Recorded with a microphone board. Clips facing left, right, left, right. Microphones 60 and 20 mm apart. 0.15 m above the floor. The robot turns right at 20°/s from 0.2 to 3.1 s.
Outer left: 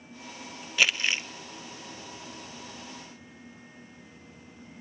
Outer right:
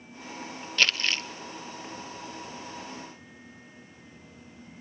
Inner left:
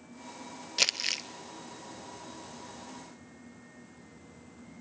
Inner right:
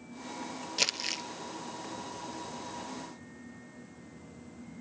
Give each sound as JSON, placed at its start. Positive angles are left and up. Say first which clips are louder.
{"t": 0.8, "sound": "crumpling", "louder": "outer left 1 dB, inner left 3 dB", "side_deg": 10, "distance_m": 0.7}